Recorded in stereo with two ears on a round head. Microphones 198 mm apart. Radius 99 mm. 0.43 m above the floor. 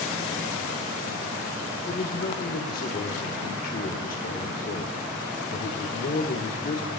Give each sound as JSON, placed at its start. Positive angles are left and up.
{"t": 1.9, "sound": "a man speaking", "side_deg": 40, "distance_m": 0.9}